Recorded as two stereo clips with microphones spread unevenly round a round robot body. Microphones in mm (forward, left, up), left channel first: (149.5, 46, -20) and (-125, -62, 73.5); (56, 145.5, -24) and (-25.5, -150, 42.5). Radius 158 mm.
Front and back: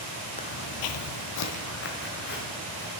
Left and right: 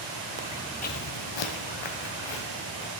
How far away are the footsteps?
About 0.9 m.